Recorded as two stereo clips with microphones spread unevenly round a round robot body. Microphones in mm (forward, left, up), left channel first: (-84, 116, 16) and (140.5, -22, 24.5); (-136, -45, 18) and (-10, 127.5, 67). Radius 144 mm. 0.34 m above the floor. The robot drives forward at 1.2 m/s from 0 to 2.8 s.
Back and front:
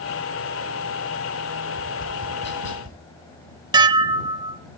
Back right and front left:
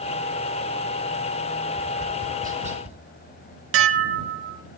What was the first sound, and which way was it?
Tapping, 85° left.